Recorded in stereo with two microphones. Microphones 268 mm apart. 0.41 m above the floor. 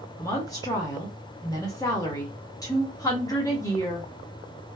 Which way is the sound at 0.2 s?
15° left (ahead or behind).